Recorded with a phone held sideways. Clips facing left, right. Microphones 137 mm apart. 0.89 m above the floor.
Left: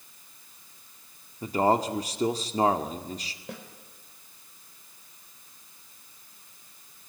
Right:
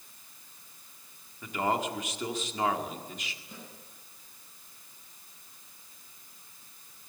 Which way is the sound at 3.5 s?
75° left (ahead or behind).